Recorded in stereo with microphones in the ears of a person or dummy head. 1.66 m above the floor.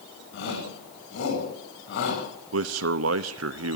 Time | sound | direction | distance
0.3 | a shout | 70° left (ahead or behind) | 9.5 m
2.5 | a man speaking | 70° right (ahead or behind) | 0.8 m